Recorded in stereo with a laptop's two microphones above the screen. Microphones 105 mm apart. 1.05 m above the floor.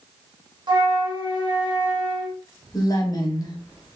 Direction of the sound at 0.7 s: 50° right (ahead or behind).